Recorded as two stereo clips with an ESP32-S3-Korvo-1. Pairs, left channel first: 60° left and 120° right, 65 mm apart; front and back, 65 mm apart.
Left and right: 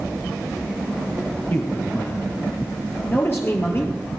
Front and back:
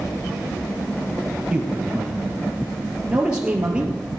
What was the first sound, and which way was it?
A man speaking, 110° left.